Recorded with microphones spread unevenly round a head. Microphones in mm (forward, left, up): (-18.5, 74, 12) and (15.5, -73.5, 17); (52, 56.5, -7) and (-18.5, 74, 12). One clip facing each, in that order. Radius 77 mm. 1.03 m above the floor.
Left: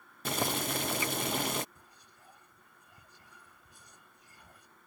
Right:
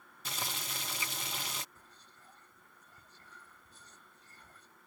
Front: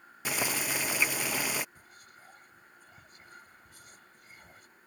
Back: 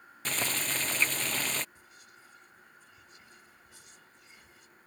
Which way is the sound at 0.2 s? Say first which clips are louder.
Left 11 dB, front 2 dB; 65° left.